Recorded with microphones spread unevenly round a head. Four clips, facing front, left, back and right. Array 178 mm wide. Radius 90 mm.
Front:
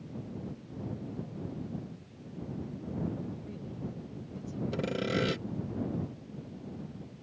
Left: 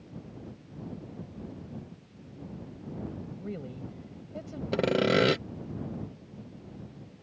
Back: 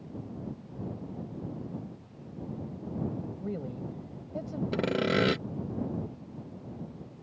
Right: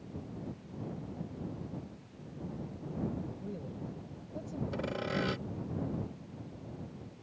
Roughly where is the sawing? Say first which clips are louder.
Left 12 dB, back 5 dB; left.